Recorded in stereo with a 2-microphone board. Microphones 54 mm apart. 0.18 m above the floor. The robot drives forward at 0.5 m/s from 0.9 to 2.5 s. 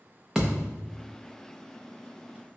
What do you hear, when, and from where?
0.3 s a thud: 5° right (ahead or behind), 0.7 m